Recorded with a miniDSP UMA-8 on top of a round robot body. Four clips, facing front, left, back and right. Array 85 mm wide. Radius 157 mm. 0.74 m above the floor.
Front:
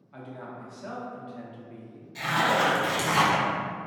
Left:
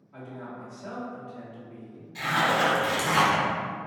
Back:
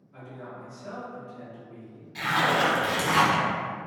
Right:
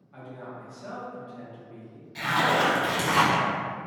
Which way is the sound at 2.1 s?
155° right.